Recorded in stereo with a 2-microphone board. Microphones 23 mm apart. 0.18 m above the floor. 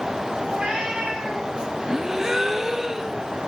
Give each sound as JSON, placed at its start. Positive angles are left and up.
{"t": 0.5, "sound": "a cat meowing", "side_deg": -40, "distance_m": 6.0}
{"t": 1.9, "sound": "a gasp", "side_deg": -20, "distance_m": 0.8}